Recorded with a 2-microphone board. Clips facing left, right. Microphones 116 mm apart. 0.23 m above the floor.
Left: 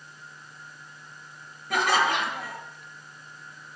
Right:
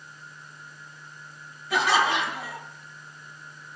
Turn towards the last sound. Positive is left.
turn(degrees=50)  # may be behind; listen again after turning